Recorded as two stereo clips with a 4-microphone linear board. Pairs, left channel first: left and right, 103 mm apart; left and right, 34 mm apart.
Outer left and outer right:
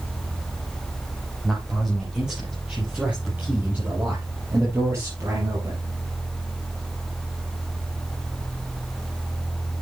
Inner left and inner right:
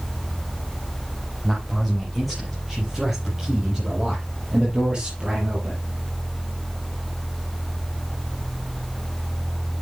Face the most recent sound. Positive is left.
turn(degrees=-35)  # may be behind; listen again after turning